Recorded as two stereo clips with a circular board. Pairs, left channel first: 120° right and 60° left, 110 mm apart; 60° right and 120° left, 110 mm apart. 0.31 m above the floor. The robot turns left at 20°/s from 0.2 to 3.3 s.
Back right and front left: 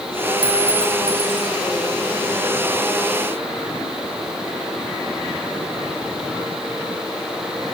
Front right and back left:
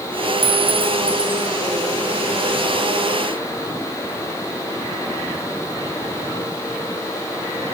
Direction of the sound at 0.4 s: 100° left.